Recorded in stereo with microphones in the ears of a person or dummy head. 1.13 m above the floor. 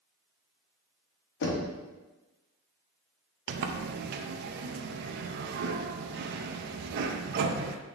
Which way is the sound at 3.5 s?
55° right (ahead or behind).